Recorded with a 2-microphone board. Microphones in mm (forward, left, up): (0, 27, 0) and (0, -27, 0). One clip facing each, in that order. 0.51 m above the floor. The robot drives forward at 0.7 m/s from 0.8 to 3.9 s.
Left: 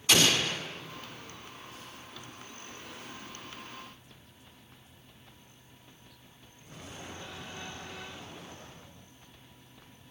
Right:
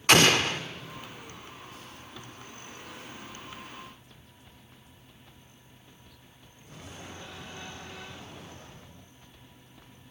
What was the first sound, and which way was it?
An explosion, 50° right (ahead or behind).